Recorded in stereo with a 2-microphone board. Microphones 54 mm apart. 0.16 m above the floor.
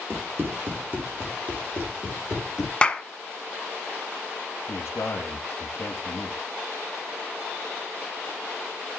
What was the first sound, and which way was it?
Running footsteps, 50° right (ahead or behind).